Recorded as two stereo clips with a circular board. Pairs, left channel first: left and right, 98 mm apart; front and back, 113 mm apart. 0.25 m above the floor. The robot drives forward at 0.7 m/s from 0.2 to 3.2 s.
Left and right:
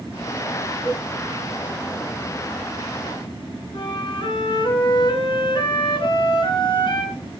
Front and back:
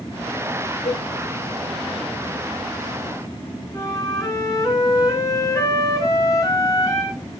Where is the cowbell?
25° left, 9 m; by 1.0 s 30° left, 8.5 m.